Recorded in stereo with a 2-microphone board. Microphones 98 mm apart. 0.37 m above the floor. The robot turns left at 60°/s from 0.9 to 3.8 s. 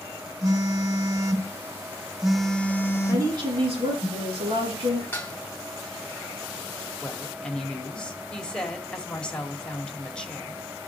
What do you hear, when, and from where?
0.4 s a phone buzzing: 95° right, 1.4 m; by 4.1 s 90° left, 1.4 m
3.1 s a woman speaking: 30° right, 5.5 m; by 5.0 s 70° right, 5.5 m
5.1 s dishes clattering: 20° left (ahead or behind), 1.6 m
7.0 s a woman speaking: 10° left (ahead or behind), 1.7 m